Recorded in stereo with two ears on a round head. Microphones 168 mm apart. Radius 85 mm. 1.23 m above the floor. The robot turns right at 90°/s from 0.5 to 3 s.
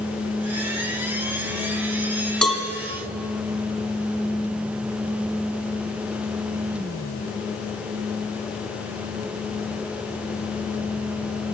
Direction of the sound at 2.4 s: 5° left (ahead or behind).